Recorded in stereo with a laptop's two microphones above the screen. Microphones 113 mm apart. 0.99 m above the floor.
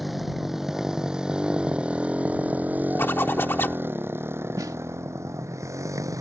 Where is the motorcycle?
Centre (ahead or behind); by 6.2 s 30° right (ahead or behind).